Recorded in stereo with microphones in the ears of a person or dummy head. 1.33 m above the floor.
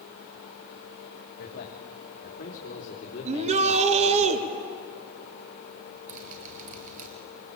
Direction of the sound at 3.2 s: 40° right (ahead or behind).